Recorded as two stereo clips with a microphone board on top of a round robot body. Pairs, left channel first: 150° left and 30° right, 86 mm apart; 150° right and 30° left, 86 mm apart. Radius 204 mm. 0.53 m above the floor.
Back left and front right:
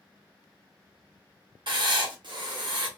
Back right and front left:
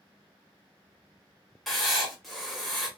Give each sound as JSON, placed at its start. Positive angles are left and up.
{"t": 1.7, "sound": "writing", "azimuth_deg": -60, "distance_m": 1.2}